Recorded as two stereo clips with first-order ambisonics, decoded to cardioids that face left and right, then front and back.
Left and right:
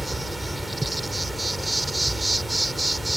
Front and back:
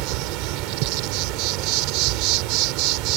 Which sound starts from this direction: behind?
An insect, at 0.0 s.